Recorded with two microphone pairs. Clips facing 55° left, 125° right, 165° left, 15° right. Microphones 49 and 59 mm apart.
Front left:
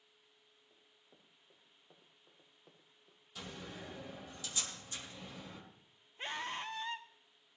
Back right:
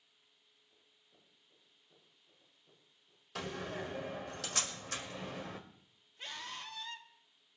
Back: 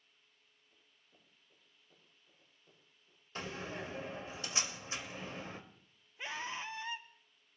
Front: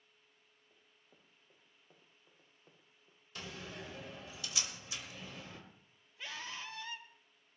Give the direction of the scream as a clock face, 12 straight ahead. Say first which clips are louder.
Front left 5 dB, back 4 dB; 9 o'clock.